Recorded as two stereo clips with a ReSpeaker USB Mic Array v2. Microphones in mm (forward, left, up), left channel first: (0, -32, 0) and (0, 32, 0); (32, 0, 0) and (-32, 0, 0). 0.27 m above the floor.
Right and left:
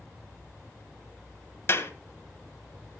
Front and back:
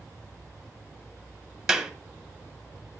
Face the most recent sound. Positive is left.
turn(degrees=-105)